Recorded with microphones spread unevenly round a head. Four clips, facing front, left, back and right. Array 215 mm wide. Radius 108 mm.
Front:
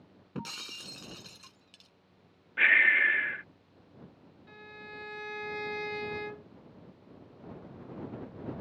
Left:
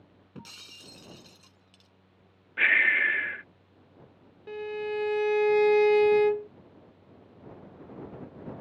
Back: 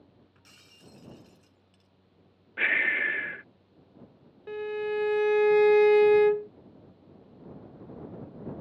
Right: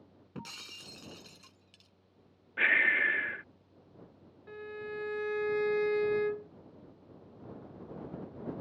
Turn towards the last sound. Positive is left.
turn(degrees=150)